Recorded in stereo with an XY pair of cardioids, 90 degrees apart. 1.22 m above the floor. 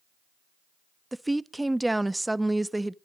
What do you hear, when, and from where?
1.1 s a woman speaking: 10° right, 0.5 m